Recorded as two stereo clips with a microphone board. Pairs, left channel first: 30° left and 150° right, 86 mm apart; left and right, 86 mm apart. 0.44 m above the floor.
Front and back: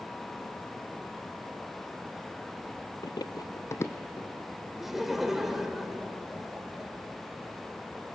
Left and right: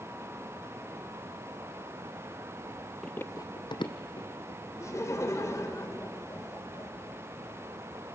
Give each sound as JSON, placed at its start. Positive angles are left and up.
{"t": 3.0, "sound": "running footsteps", "azimuth_deg": 5, "distance_m": 0.6}
{"t": 4.8, "sound": "laughter", "azimuth_deg": 125, "distance_m": 1.9}